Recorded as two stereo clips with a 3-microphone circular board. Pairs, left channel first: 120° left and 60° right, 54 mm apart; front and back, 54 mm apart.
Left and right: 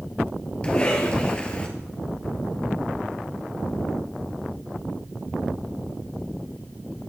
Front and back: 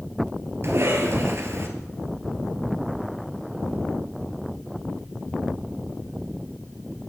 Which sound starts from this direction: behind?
A cough, at 0.6 s.